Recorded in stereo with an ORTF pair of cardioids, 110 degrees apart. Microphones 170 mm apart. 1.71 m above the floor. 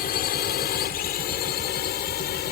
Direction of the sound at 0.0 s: 60° left.